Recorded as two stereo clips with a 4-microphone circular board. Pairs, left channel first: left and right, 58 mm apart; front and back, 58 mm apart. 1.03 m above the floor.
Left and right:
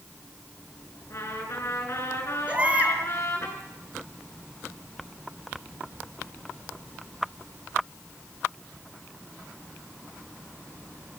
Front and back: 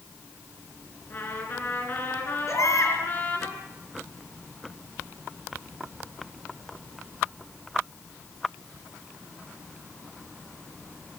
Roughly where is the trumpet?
Ahead left.